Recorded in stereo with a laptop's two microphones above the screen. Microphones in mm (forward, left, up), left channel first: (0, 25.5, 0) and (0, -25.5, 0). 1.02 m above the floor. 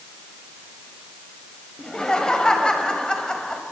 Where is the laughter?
15° left (ahead or behind), 4.5 m.